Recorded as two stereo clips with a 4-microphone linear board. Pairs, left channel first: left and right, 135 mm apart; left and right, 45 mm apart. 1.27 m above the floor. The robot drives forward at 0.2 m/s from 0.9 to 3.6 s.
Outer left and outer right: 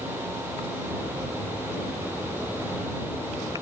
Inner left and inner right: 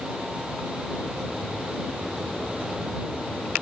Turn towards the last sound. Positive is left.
No sound to turn to.